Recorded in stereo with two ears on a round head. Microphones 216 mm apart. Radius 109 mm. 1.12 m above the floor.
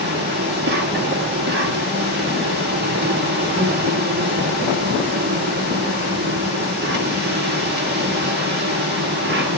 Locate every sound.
0.0 s an insect: 45° right (ahead or behind), 1.7 m